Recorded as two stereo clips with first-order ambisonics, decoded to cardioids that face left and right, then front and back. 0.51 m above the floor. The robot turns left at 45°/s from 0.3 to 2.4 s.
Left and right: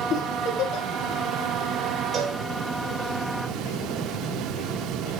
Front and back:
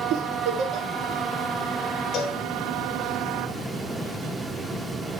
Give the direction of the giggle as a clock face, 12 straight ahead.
8 o'clock.